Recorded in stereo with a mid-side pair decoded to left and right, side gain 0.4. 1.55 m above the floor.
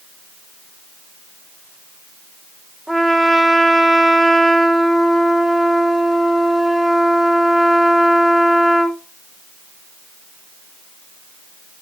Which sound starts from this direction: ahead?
A trumpet, at 2.9 s.